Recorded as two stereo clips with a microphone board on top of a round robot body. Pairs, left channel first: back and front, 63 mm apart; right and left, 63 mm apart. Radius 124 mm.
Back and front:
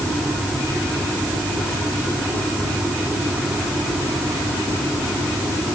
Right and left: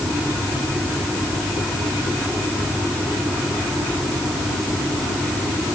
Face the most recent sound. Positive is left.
No sound to turn to.